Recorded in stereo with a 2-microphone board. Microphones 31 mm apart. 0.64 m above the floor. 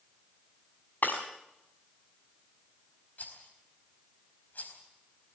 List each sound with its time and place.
1.0 s breaking glass: 70° left (ahead or behind), 5 m
3.2 s a rattle: 60° left (ahead or behind), 4 m